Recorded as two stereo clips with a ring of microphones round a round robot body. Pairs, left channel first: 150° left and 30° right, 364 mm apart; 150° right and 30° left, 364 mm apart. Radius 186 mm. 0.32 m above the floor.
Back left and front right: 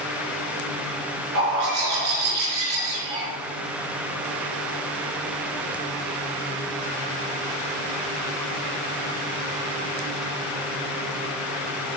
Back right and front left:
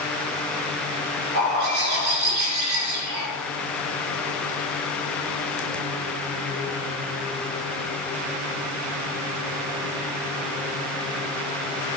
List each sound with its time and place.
1.4 s a bird: 5° left, 4 m